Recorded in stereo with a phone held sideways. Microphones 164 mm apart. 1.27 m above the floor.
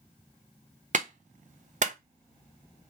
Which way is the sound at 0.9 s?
50° right (ahead or behind).